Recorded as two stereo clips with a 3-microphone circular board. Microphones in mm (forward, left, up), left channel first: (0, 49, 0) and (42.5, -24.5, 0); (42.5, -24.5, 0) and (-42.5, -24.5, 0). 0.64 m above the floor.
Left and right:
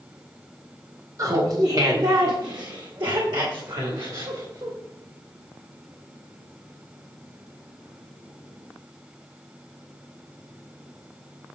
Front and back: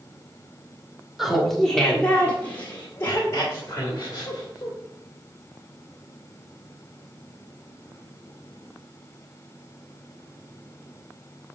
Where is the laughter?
95° right, 1.5 m; by 4.8 s 40° right, 3 m.